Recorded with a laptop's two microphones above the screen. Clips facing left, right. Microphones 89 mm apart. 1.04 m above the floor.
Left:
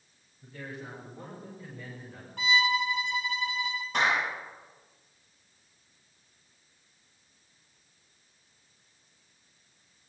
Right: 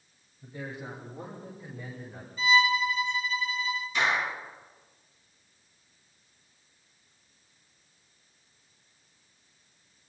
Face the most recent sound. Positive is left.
turn(degrees=65)  # may be behind; listen again after turning